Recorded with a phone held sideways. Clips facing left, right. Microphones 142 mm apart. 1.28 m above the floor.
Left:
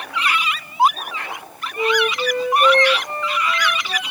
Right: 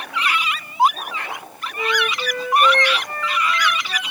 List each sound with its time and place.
1.8 s a flute: 25° left (ahead or behind)